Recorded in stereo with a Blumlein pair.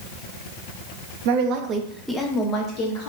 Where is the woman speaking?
50° right, 0.6 m; by 3.1 s 45° left, 0.8 m.